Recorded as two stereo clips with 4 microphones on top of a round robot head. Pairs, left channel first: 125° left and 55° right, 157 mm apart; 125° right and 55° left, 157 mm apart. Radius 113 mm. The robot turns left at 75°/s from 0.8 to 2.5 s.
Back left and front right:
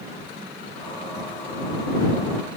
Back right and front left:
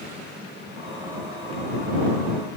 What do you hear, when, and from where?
Only background noise.